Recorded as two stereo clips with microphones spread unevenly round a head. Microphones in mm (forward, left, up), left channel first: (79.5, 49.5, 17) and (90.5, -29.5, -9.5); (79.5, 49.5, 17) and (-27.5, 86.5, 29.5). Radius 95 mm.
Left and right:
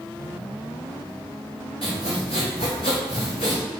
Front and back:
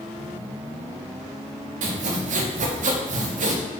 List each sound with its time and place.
1.8 s sawing: 155° left, 0.5 m